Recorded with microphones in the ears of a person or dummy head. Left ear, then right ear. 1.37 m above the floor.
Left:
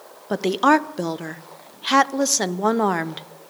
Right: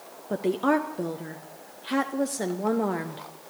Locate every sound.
0.3 s a woman speaking: 35° left (ahead or behind), 0.6 m